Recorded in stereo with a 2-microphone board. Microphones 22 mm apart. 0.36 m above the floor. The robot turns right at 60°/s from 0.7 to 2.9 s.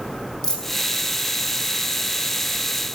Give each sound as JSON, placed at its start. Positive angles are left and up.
{"t": 0.4, "sound": "a dropped coin", "side_deg": 30, "distance_m": 4.5}